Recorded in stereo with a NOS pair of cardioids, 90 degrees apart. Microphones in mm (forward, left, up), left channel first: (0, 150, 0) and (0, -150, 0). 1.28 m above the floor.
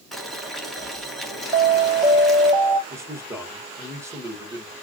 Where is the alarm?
20° right, 1.7 m.